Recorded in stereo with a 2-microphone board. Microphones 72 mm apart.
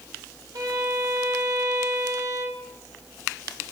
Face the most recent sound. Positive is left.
turn(degrees=-75)  # may be behind; listen again after turning